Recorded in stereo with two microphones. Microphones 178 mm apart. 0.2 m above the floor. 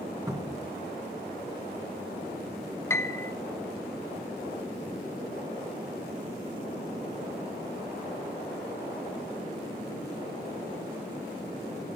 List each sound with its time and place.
0.3 s a cupboard door: 20° right (ahead or behind), 2 m
2.9 s a piano: 15° left (ahead or behind), 0.6 m